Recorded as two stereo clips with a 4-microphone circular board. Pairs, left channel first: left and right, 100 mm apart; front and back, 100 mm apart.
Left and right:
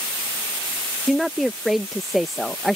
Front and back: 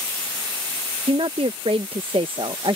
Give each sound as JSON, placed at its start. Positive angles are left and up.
{"t": 1.1, "sound": "a woman speaking", "azimuth_deg": 180}